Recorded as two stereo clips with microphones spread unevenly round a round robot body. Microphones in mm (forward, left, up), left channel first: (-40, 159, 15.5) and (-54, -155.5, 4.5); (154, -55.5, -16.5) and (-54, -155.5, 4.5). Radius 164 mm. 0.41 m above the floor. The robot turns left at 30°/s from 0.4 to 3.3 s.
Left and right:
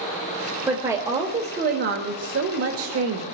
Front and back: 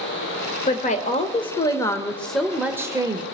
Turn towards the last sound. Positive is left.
turn(degrees=-85)